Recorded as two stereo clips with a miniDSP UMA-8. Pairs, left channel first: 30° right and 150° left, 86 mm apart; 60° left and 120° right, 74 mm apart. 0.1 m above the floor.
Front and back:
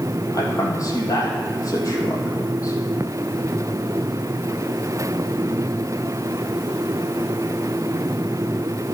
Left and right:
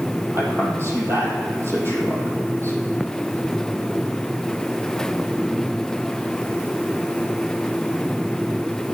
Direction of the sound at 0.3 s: 75° right.